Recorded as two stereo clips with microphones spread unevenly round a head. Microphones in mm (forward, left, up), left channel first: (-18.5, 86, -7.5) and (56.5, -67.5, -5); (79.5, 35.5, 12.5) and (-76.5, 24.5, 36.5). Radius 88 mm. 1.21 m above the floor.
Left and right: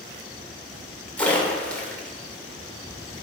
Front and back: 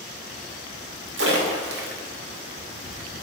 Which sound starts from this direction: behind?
A splash, at 1.2 s.